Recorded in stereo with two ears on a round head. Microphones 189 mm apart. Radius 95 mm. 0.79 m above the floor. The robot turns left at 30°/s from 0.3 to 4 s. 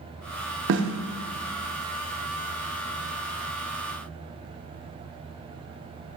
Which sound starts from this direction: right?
A snare drum, at 0.7 s.